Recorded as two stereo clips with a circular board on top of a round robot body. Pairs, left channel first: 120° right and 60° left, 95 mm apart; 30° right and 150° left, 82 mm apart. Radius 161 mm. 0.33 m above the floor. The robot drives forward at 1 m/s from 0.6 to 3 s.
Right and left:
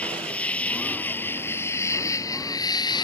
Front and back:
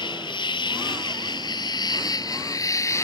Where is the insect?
45° right; by 3.0 s 80° right.